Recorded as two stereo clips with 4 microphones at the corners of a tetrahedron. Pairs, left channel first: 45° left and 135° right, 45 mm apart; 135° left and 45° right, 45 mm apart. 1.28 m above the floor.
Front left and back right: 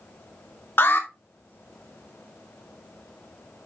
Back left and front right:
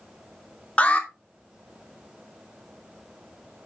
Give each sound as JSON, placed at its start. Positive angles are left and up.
{"t": 0.8, "sound": "an alarm", "azimuth_deg": 75, "distance_m": 2.5}